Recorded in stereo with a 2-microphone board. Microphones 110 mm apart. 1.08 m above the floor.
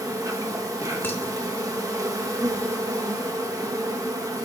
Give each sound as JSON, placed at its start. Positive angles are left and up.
{"t": 0.0, "sound": "an insect", "side_deg": -30, "distance_m": 0.8}
{"t": 1.0, "sound": "dishes clattering", "side_deg": 20, "distance_m": 1.0}